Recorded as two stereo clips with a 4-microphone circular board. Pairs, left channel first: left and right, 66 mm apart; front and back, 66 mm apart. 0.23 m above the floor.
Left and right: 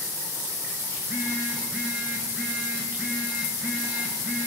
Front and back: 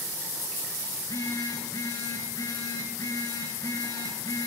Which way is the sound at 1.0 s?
20° right.